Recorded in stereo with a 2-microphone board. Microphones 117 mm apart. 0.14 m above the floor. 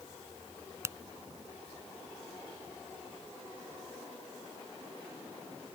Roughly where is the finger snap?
Right.